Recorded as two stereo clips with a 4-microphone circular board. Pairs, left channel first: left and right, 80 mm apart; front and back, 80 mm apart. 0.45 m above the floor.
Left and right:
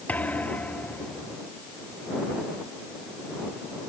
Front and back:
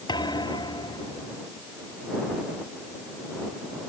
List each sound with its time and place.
0.1 s a thud: 20° left